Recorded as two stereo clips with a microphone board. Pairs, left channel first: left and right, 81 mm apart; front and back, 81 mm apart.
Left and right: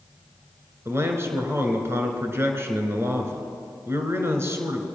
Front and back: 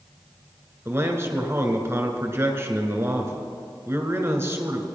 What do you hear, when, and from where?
0.8 s a man speaking: 135° right, 2.0 m